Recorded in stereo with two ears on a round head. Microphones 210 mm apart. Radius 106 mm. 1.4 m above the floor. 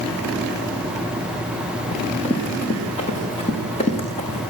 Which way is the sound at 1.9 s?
25° left (ahead or behind).